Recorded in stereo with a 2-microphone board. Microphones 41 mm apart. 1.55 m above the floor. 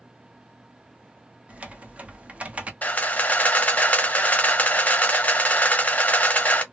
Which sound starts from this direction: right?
Typing on a keyboard, at 1.5 s.